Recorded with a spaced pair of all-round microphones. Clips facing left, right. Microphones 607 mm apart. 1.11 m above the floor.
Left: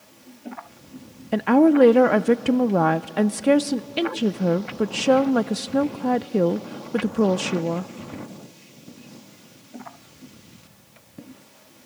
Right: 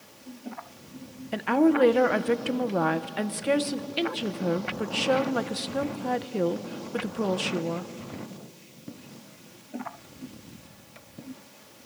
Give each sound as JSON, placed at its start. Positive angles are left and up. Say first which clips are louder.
{"t": 1.3, "sound": "a woman speaking", "louder": "left 6 dB", "side_deg": 70, "distance_m": 0.5}